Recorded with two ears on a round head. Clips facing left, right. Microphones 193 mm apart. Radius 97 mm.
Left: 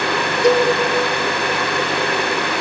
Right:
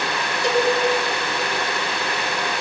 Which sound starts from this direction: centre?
A cowbell, at 0.4 s.